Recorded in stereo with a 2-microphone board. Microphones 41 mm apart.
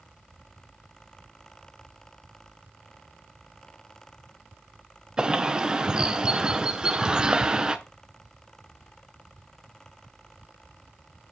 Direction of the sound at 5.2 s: 20° right (ahead or behind).